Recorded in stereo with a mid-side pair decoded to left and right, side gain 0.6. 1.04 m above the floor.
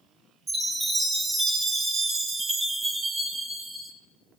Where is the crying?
No crying in this recording.